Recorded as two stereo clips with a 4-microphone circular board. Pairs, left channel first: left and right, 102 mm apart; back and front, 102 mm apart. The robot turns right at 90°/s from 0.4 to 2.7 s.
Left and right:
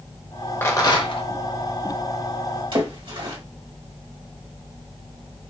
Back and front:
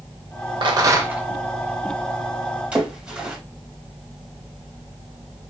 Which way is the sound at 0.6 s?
25° left.